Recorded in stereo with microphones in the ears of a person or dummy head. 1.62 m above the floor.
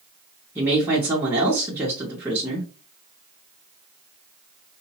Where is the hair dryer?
I don't hear a hair dryer.